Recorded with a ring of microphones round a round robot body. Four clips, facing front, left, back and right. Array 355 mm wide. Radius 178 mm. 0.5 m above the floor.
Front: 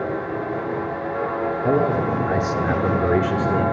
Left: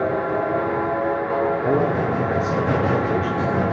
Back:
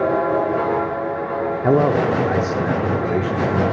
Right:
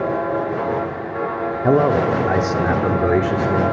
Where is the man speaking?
135° right, 1.4 m; by 3.7 s 60° right, 2 m.